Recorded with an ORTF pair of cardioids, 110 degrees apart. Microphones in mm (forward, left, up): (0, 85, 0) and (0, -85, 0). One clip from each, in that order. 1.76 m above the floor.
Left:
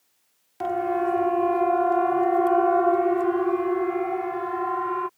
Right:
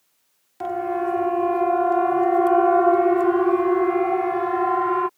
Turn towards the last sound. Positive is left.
turn(degrees=-30)